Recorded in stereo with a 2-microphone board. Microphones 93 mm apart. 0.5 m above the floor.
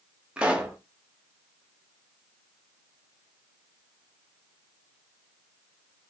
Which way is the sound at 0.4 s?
10° right (ahead or behind).